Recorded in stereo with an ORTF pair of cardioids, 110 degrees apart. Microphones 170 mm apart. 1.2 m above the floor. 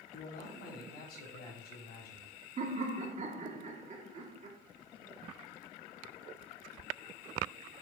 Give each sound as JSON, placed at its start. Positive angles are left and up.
{"t": 0.1, "sound": "a man speaking", "azimuth_deg": 65, "distance_m": 3.5}
{"t": 2.6, "sound": "laughter", "azimuth_deg": -45, "distance_m": 1.9}